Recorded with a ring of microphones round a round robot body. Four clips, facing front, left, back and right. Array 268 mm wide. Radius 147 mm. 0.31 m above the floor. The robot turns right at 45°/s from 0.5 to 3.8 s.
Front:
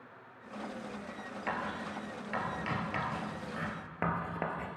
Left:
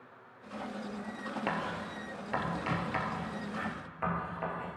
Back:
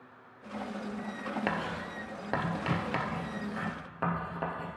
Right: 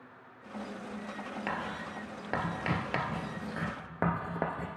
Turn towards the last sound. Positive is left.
turn(degrees=-80)